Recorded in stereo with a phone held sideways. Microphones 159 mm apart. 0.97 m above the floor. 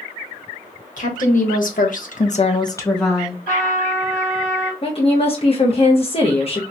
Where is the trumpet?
60° left (ahead or behind), 1.9 m.